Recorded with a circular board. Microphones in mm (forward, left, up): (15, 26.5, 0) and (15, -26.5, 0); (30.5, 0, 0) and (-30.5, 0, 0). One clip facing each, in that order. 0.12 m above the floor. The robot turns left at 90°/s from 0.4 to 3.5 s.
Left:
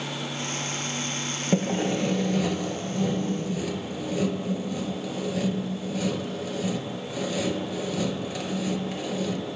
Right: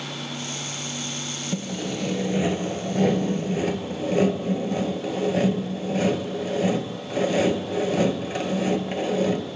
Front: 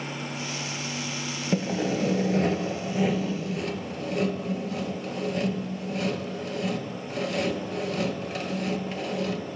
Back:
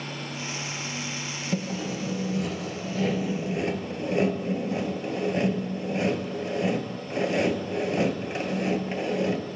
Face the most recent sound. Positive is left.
turn(degrees=-125)